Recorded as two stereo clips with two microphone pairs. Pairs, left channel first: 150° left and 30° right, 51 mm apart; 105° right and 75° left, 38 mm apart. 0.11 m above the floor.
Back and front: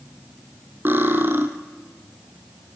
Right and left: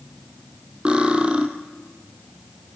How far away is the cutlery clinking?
About 2 m.